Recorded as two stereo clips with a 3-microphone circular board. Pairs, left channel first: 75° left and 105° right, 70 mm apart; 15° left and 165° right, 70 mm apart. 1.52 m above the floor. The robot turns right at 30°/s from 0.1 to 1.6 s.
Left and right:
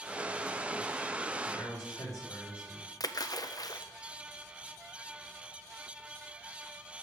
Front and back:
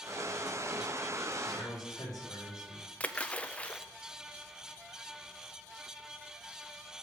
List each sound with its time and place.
1.5 s a man speaking: 40° left, 4 m; by 2.8 s 45° left, 4 m
3.0 s a splash: 85° left, 0.5 m